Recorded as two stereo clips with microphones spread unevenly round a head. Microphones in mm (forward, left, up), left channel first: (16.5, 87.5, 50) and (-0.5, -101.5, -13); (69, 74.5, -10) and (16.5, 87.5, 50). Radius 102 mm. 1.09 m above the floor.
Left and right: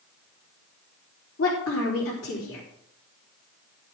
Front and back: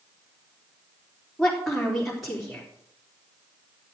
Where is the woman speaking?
70° left, 3.5 m.